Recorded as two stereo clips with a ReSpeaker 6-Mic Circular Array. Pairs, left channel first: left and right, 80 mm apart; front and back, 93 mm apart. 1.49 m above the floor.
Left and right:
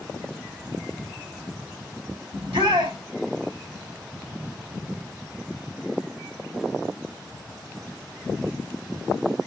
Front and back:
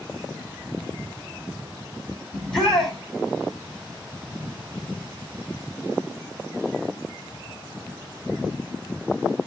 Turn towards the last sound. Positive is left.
turn(degrees=-85)